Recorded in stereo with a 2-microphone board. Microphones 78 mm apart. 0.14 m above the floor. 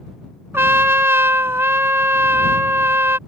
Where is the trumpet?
30° right (ahead or behind).